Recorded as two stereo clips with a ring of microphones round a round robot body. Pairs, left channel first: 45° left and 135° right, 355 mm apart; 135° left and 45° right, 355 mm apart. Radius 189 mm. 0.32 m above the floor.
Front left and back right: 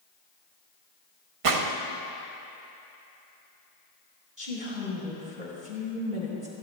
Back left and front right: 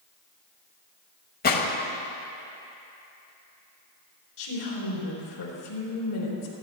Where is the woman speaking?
155° left, 4 m.